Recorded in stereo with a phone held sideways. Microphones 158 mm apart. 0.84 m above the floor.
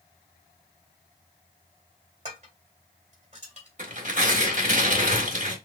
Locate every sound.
2.2 s dishes clattering: 45° right (ahead or behind), 2 m
3.8 s tearing paper: 55° right (ahead or behind), 1.7 m